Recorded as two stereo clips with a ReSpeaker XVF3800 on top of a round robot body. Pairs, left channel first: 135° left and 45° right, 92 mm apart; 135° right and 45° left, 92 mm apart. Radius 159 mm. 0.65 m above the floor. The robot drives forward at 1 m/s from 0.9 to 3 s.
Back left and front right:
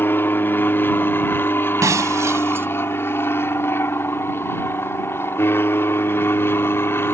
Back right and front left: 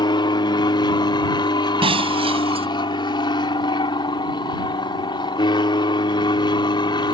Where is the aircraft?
160° right.